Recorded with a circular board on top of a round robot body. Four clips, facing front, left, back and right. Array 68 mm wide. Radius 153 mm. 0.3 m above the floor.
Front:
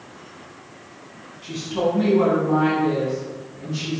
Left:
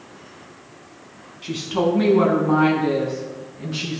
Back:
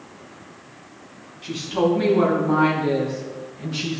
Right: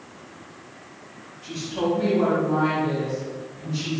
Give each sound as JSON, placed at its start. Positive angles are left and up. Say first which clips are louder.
{"t": 1.4, "sound": "a woman speaking", "louder": "left 4 dB, back 2 dB", "azimuth_deg": 105, "distance_m": 3.5}